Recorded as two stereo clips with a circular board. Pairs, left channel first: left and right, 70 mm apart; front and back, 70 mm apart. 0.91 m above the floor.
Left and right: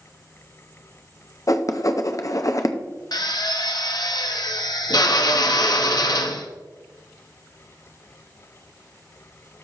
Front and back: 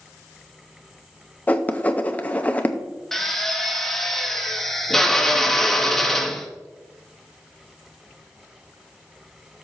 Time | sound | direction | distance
1.5 | writing | 65° left | 0.7 m
3.1 | a drill | 85° left | 0.9 m